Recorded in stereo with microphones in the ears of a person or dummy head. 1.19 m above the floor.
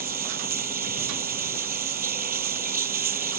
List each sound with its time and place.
0.0 s running water: 50° right (ahead or behind)